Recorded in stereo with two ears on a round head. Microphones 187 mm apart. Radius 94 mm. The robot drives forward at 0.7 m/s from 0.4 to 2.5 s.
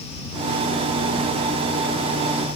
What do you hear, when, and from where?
Only background noise.